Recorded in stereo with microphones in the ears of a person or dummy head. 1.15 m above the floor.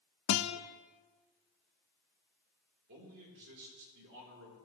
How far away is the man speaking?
About 3.5 m.